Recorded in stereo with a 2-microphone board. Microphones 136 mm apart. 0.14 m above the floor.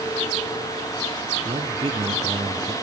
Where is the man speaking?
50° right (ahead or behind), 2.5 m; by 2.7 s 35° right (ahead or behind), 3 m.